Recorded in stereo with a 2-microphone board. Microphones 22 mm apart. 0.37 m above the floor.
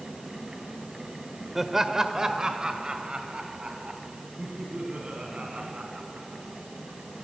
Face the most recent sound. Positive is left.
turn(degrees=-70)  # may be behind; listen again after turning